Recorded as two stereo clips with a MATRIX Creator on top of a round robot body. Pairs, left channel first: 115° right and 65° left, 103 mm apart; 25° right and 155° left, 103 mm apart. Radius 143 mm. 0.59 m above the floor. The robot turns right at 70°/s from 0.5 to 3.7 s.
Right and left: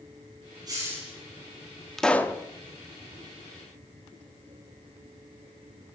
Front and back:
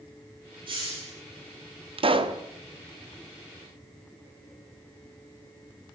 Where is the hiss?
120° left, 8 m; by 1.1 s 150° left, 8 m.